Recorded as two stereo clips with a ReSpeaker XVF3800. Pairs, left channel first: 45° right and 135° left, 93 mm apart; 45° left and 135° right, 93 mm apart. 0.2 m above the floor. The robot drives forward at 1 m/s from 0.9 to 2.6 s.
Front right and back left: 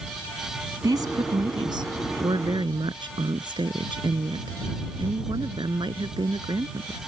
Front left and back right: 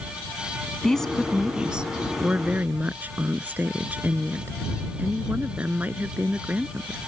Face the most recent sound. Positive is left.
turn(degrees=155)